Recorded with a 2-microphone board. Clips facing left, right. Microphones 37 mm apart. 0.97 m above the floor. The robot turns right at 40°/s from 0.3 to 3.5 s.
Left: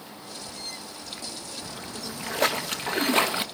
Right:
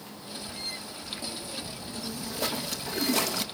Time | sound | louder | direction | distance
1.6 | a splash | left 1 dB | 75° left | 1.2 m